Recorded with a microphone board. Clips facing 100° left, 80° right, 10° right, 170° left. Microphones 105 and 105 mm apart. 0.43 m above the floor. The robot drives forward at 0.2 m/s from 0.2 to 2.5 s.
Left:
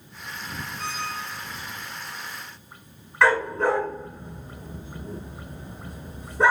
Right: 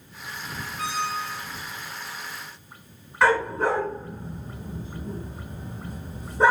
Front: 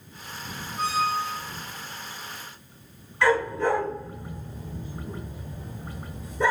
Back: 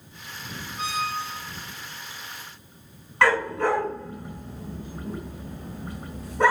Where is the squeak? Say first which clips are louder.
Right 6 dB, front 4 dB; 65° right, 0.7 m; by 1.5 s 75° right, 0.6 m.